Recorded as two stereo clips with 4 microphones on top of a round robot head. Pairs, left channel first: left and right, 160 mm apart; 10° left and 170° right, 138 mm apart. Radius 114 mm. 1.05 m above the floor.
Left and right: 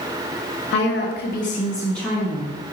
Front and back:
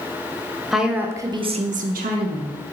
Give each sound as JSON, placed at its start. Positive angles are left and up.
{"t": 0.7, "sound": "a woman speaking", "azimuth_deg": 105, "distance_m": 0.8}